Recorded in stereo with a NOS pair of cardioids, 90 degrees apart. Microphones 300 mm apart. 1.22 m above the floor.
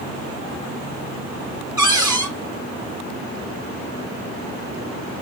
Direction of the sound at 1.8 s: 10° right.